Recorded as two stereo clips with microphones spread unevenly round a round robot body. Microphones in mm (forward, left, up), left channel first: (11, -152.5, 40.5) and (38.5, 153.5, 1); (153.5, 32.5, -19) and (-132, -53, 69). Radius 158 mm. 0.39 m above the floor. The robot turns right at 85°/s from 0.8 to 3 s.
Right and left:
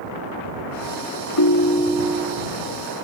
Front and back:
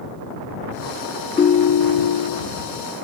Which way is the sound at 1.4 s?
55° right.